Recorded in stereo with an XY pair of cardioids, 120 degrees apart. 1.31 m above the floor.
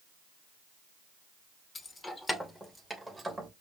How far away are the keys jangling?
About 0.7 m.